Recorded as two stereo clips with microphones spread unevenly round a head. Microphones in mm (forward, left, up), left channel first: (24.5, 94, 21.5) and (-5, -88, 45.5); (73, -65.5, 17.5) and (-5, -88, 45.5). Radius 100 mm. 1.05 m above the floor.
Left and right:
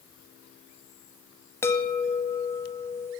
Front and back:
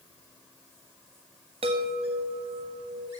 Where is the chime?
155° left, 1.5 m.